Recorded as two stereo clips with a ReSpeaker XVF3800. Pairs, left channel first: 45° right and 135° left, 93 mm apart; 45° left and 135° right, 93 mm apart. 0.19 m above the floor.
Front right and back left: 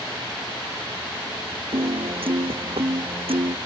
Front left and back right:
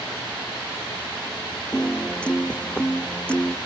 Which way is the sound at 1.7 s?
125° left.